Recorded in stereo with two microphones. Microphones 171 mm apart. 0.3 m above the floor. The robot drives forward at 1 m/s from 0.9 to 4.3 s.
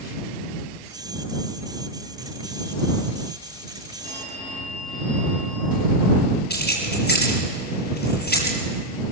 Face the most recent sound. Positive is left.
turn(degrees=70)  # may be behind; listen again after turning